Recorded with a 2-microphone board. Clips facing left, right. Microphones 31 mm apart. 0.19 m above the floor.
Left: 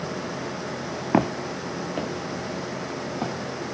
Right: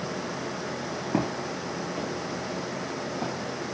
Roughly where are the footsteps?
Left.